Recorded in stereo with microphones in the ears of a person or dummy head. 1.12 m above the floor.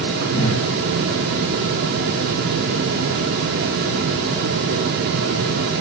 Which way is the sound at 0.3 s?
60° left (ahead or behind).